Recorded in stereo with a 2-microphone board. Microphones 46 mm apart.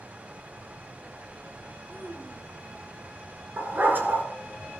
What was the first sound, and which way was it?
A child speaking, 40° right (ahead or behind).